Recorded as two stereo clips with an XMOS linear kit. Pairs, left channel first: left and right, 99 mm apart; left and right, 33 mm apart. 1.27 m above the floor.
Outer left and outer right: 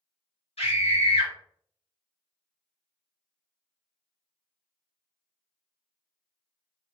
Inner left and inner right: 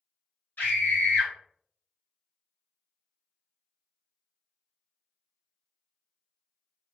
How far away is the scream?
About 1.5 m.